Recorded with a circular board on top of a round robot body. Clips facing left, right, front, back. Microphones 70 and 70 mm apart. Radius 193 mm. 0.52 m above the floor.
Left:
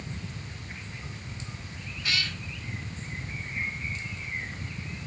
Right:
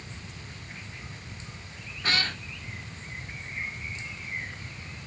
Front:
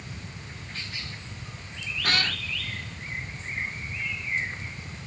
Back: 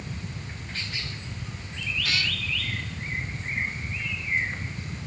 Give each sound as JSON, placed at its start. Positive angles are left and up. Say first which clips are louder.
{"t": 2.0, "sound": "a cat meowing", "louder": "right 3 dB, front 4 dB", "azimuth_deg": -40}